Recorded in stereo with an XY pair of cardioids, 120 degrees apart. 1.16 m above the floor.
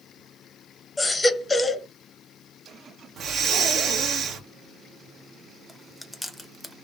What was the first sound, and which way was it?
A baby crying, 10° left.